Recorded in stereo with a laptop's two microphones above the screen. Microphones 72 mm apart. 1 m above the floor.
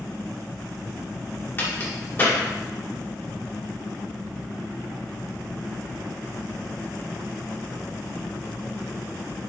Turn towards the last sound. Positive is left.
turn(degrees=30)  # may be behind; listen again after turning